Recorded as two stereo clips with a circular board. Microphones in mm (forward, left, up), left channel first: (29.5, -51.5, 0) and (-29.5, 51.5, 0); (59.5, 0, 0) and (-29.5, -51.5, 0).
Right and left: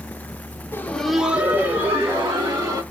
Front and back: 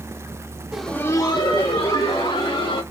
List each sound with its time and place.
0.7 s laughter: 80° right, 0.8 m; by 2.8 s 55° left, 3 m